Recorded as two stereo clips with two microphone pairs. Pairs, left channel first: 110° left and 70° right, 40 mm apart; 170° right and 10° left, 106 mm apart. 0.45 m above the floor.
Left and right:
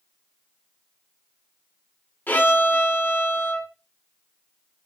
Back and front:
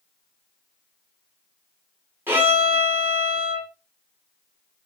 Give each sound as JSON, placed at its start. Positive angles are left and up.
{"t": 2.3, "sound": "a violin", "azimuth_deg": 80, "distance_m": 1.8}